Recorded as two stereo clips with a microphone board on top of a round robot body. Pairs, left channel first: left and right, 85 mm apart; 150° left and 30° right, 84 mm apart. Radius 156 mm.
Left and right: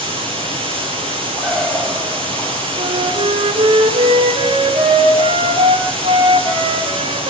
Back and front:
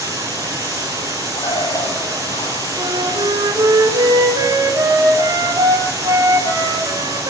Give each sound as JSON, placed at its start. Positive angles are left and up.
{"t": 0.0, "sound": "running water", "azimuth_deg": -85, "distance_m": 7.5}
{"t": 1.4, "sound": "a bird", "azimuth_deg": -170, "distance_m": 9.5}
{"t": 2.8, "sound": "a flute", "azimuth_deg": -75, "distance_m": 3.5}